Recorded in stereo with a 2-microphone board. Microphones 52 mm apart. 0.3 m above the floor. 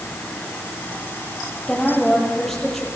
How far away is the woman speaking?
About 7 m.